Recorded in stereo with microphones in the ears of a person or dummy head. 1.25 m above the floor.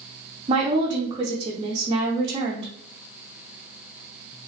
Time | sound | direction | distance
0.5 | a woman speaking | 30° right (ahead or behind) | 0.6 m